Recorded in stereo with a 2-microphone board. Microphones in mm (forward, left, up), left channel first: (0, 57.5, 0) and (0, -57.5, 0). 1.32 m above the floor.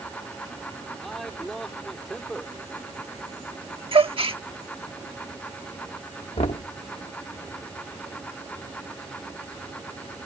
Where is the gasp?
55° right (ahead or behind).